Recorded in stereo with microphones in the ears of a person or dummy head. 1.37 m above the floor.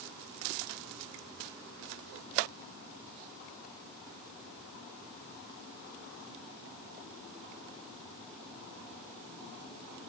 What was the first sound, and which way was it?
Only background noise.